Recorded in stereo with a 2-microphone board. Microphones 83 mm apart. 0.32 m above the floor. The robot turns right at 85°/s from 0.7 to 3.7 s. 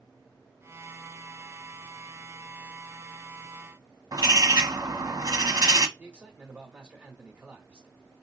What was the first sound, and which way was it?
A bird, 55° right (ahead or behind).